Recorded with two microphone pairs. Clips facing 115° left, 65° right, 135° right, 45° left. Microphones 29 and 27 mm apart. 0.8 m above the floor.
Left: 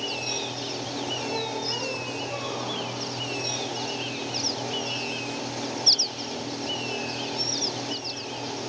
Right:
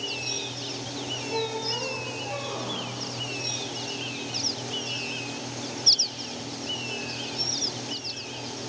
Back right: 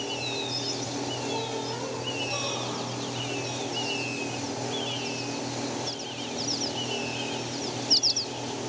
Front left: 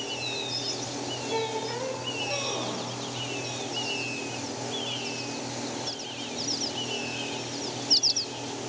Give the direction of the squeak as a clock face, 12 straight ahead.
11 o'clock.